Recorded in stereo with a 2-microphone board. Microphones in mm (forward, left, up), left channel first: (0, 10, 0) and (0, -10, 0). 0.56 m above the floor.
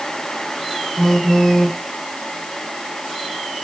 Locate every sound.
1.0 s a phone buzzing: 30° left (ahead or behind), 0.6 m